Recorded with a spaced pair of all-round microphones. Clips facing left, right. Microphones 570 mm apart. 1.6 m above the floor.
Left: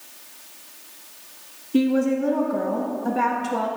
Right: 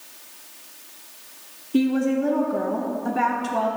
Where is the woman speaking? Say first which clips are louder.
Left 1 dB; centre (ahead or behind), 0.5 m.